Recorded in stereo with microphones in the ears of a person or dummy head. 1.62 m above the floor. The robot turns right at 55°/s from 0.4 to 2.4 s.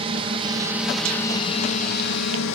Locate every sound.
0.0 s a drone: 30° right (ahead or behind); by 2.6 s 65° left (ahead or behind)